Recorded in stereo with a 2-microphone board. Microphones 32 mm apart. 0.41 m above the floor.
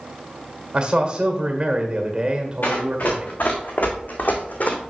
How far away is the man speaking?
About 1.5 m.